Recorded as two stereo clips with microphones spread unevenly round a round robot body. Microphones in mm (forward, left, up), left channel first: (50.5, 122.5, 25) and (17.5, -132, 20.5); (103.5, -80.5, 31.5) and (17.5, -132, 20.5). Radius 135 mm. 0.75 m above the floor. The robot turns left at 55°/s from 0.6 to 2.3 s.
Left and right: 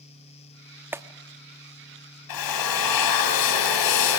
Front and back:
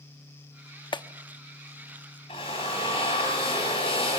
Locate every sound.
0.9 s a clap: 15° right, 1.0 m; by 1.1 s 25° right, 1.0 m
2.3 s a drill: 100° left, 3.5 m; by 4.2 s 95° left, 3.5 m